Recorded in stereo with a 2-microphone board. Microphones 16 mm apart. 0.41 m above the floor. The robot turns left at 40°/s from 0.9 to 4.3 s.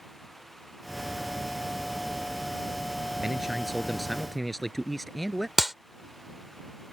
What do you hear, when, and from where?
3.2 s a man speaking: 150° right; by 5.5 s 165° left
5.6 s a clap: 15° right (ahead or behind)